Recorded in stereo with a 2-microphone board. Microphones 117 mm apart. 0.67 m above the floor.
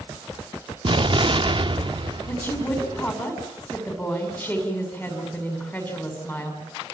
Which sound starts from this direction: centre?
A woman speaking, at 2.3 s.